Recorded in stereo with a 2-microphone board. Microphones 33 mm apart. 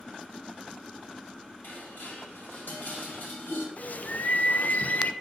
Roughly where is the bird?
Left.